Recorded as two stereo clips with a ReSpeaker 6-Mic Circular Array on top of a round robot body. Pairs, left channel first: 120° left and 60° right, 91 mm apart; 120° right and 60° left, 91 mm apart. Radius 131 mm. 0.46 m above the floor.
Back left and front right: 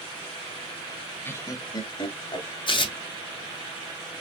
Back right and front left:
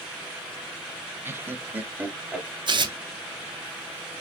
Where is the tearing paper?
95° left, 0.9 m.